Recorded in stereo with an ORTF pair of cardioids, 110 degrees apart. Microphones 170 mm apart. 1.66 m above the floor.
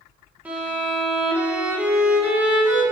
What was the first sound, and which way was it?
A violin, 10° right.